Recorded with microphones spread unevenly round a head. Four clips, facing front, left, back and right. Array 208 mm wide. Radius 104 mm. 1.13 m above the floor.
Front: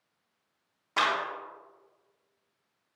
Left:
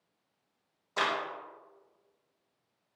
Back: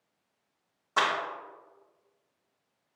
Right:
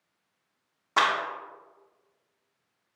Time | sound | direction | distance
1.0 | a clap | 80° right | 3 m